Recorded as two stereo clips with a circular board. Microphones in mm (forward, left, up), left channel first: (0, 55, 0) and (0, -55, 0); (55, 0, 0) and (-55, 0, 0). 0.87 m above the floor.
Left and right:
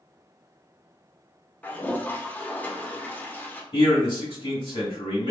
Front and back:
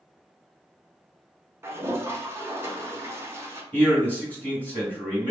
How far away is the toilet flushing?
About 0.6 m.